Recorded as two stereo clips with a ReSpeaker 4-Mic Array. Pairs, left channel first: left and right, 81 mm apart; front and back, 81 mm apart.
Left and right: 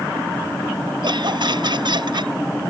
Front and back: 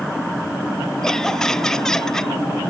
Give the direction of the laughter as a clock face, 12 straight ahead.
3 o'clock.